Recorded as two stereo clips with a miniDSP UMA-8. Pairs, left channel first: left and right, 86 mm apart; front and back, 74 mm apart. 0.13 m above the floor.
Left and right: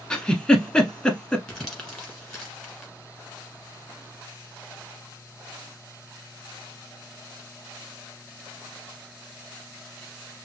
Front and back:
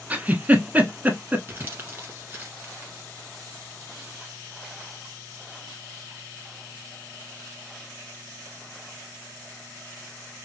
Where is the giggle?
155° left, 0.6 m.